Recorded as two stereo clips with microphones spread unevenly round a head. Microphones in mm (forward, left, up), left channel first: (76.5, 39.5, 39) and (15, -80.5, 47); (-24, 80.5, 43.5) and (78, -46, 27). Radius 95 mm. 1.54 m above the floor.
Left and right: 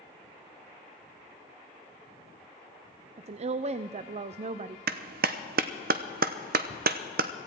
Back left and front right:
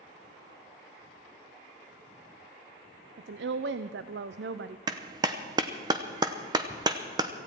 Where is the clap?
120° right, 0.8 m.